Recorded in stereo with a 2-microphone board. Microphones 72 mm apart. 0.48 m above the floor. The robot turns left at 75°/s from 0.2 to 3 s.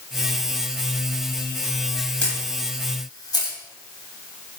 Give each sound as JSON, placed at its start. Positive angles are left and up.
{"t": 2.2, "sound": "a camera shutter", "side_deg": 15, "distance_m": 2.0}